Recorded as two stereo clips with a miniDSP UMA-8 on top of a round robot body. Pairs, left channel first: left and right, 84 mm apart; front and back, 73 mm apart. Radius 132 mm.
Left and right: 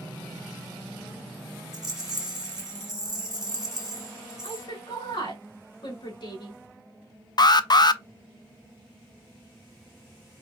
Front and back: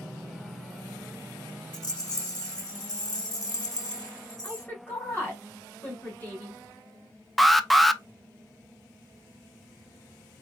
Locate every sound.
1.7 s a rattle: 5° right, 1.6 m
4.4 s a woman speaking: 65° left, 2.5 m
7.4 s an alarm: 90° left, 0.6 m